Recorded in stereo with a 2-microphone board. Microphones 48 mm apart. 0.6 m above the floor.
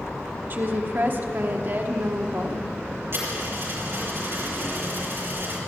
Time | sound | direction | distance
0.5 | a woman speaking | 45° right (ahead or behind) | 1.0 m
3.1 | a dropped coin | 55° right (ahead or behind) | 5 m